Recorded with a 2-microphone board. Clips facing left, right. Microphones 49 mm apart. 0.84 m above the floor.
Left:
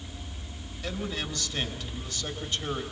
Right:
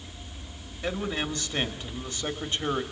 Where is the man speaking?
30° right (ahead or behind), 2 m.